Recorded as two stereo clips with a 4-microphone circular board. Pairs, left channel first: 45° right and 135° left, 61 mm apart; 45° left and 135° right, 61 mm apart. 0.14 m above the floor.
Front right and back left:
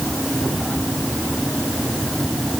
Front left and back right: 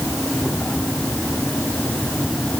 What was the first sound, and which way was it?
Only background noise.